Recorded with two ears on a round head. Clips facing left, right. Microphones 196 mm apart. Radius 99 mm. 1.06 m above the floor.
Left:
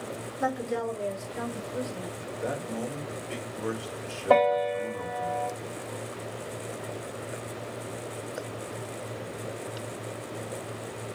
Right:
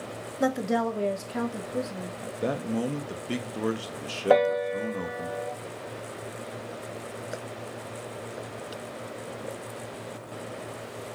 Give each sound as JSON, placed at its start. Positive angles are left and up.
{"t": 0.4, "sound": "a woman speaking", "side_deg": -40, "distance_m": 0.8}
{"t": 2.2, "sound": "a man speaking", "side_deg": -45, "distance_m": 0.9}
{"t": 4.3, "sound": "a piano", "side_deg": -15, "distance_m": 2.0}